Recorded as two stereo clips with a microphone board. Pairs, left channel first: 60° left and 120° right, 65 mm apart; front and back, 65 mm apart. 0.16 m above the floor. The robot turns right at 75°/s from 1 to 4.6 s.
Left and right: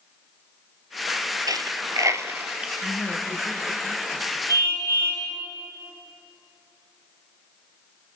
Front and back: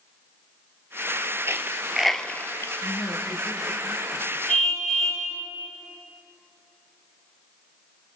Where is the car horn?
75° left, 7 m; by 5.3 s 85° left, 7 m.